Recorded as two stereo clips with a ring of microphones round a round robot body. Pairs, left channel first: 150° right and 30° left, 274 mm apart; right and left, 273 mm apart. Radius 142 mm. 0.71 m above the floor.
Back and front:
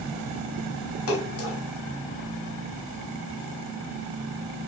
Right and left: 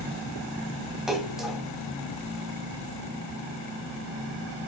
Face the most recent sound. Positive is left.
turn(degrees=180)